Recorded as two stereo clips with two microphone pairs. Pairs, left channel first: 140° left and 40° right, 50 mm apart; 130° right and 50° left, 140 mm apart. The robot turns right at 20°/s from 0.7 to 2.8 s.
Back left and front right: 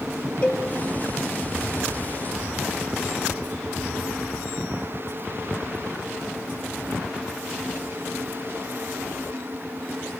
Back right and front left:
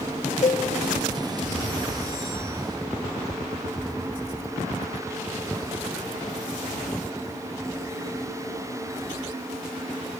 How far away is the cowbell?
About 0.7 m.